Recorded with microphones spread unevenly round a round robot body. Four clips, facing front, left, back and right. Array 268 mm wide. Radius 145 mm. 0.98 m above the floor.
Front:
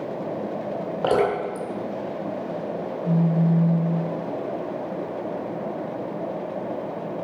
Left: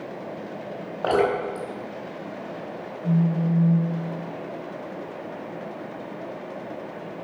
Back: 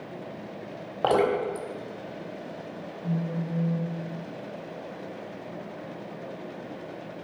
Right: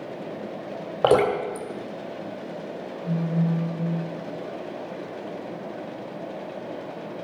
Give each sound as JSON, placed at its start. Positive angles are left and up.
{"t": 1.0, "sound": "dripping", "azimuth_deg": -85, "distance_m": 2.0}
{"t": 3.0, "sound": "a phone buzzing", "azimuth_deg": 145, "distance_m": 5.5}